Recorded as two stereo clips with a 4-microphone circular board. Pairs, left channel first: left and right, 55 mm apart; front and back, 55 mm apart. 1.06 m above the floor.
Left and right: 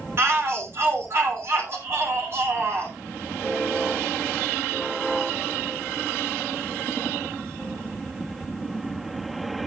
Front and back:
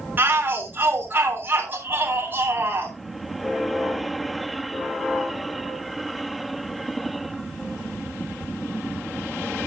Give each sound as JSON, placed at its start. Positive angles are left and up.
{"t": 0.2, "sound": "a shout", "azimuth_deg": -125, "distance_m": 3.0}